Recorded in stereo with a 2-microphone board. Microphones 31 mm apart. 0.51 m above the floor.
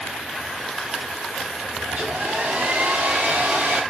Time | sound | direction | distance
1.9 | a hair dryer | 60° right (ahead or behind) | 4.5 m